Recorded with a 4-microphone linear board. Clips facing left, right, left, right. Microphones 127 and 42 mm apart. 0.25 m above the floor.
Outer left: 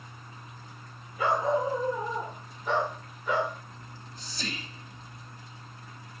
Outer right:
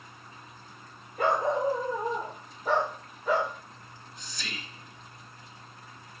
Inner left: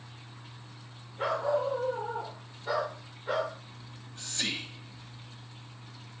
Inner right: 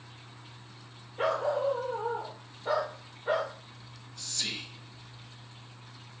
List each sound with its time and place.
1.2 s a dog barking: 55° right (ahead or behind), 2.0 m; by 3.5 s 35° right (ahead or behind), 3.5 m
3.8 s whispering: 35° left (ahead or behind), 1.0 m